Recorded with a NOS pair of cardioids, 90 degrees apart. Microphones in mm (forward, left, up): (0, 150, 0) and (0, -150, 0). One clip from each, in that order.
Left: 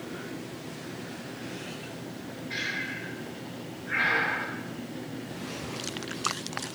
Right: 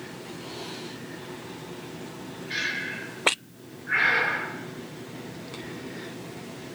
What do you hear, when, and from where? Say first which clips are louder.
2.5 s breathing: right 3 dB; 30° right, 6.5 m